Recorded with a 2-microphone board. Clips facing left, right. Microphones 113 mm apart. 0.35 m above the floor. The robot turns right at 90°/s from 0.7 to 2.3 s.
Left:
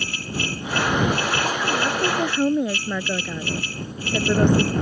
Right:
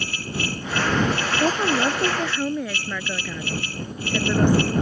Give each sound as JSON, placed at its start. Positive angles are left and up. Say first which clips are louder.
{"t": 1.4, "sound": "a woman speaking", "louder": "right 3 dB", "azimuth_deg": -60}